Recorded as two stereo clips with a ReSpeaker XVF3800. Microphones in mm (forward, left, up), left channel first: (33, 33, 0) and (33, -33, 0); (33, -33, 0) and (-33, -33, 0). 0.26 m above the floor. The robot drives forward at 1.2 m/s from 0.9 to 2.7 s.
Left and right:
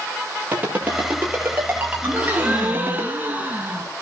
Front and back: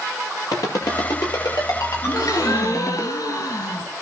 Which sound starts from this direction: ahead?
A gasp, at 2.0 s.